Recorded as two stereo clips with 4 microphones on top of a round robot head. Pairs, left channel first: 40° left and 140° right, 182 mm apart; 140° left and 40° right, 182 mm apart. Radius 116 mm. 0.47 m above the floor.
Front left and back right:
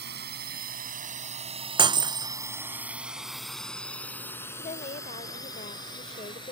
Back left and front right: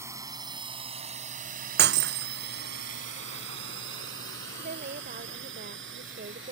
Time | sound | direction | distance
0.0 | a drone | 115° right | ?
1.8 | breaking glass | 75° right | ?
4.5 | a woman speaking | 10° right | ?